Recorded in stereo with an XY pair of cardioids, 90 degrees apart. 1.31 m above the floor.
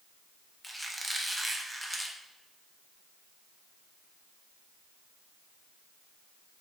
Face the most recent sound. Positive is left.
turn(degrees=-15)